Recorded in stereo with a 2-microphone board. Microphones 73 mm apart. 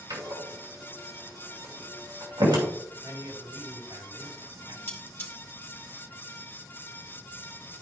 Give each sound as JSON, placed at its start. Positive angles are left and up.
{"t": 0.1, "sound": "a door slam", "side_deg": -80, "distance_m": 2.5}
{"t": 3.0, "sound": "a man speaking", "side_deg": -70, "distance_m": 3.0}
{"t": 4.9, "sound": "cutlery clinking", "side_deg": 30, "distance_m": 2.0}